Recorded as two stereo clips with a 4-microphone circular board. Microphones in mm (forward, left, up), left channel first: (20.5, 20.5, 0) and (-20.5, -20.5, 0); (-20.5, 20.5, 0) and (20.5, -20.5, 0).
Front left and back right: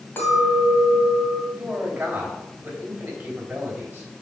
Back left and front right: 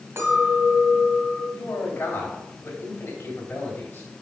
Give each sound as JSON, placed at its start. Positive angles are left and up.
{"t": 0.2, "sound": "a clink", "azimuth_deg": -5, "distance_m": 2.5}
{"t": 1.5, "sound": "a man speaking", "azimuth_deg": 165, "distance_m": 3.0}